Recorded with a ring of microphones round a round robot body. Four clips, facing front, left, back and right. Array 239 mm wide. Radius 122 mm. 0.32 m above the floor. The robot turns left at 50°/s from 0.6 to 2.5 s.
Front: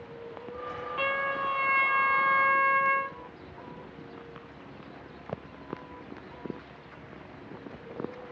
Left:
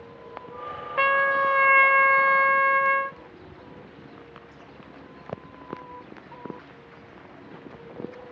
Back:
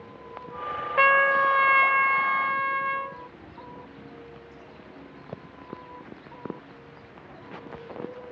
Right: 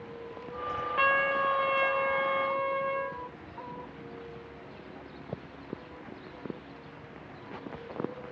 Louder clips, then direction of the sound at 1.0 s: Left 6 dB, back 11 dB; 160° left.